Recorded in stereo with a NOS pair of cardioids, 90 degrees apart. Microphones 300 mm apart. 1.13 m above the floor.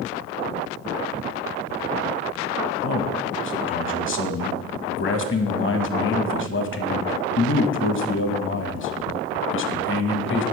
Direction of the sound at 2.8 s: 45° left.